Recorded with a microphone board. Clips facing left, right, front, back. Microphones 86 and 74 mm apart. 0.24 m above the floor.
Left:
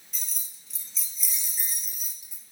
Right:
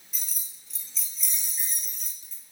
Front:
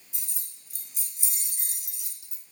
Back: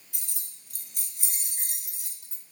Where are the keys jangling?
175° right, 2 m; by 2.4 s 155° left, 1.1 m.